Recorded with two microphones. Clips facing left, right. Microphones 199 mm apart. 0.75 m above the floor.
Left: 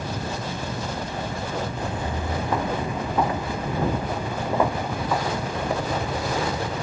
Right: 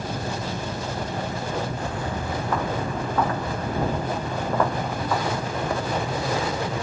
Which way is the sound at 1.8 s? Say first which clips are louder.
Even; 20° left (ahead or behind).